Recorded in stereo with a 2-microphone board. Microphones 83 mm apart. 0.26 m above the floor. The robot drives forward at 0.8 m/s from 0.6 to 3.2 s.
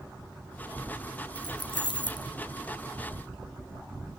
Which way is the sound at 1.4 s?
55° left (ahead or behind).